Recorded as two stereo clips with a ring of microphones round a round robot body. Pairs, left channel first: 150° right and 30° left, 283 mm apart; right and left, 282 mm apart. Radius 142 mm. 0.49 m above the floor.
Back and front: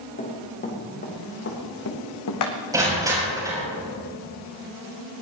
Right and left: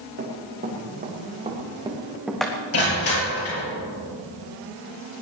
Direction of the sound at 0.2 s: 145° left.